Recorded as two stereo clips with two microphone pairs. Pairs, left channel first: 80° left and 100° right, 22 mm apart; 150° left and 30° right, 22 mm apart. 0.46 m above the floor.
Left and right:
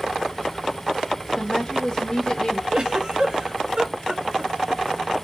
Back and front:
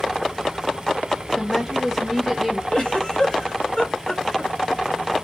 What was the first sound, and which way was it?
A woman speaking, 65° left.